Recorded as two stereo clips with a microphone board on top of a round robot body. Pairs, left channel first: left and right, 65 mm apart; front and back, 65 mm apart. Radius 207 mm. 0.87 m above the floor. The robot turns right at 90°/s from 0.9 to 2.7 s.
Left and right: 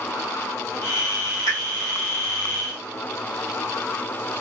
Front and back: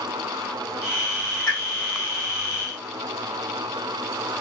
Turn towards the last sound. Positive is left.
turn(degrees=-165)